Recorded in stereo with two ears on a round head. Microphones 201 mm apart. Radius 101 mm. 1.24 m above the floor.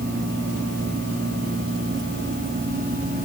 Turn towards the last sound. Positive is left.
No sound to turn to.